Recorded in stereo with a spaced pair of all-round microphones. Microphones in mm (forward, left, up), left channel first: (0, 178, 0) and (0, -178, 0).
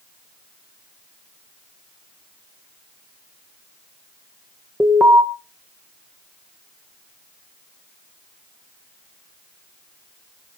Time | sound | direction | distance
4.8 | an alarm | 5° right (ahead or behind) | 1.9 m